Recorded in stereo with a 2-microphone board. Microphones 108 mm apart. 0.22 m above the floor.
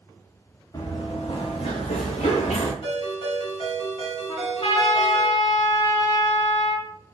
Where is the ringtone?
60° left (ahead or behind), 1.9 m.